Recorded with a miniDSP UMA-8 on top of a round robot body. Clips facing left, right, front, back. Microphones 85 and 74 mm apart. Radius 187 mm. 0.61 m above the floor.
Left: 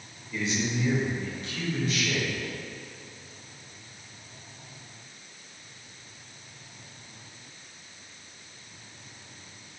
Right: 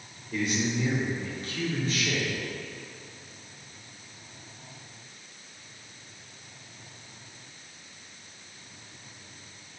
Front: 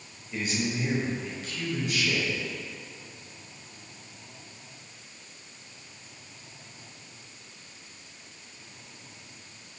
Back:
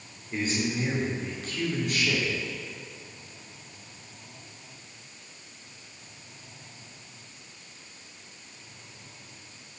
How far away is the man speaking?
About 3.5 m.